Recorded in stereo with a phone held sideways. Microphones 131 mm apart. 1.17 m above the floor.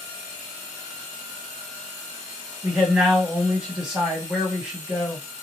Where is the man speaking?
5° right (ahead or behind), 1.6 m.